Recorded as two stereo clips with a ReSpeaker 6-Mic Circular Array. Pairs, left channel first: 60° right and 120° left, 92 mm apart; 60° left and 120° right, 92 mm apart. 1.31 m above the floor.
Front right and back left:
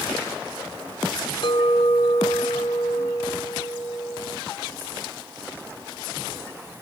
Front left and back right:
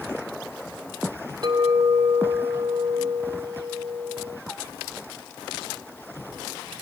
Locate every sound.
1.4 s a clink: 80° right, 3.5 m